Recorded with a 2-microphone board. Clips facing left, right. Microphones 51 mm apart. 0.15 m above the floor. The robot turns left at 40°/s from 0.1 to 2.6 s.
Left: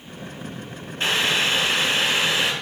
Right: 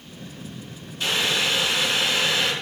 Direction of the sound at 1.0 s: 85° left.